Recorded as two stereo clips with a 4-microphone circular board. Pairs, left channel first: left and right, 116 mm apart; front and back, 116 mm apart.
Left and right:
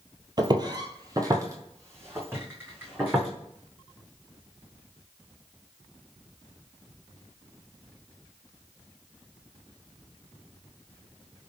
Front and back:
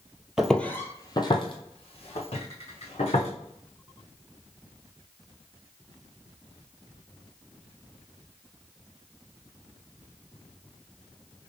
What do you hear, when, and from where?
0.4 s footsteps: 100° right, 0.6 m; by 3.3 s 15° right, 2 m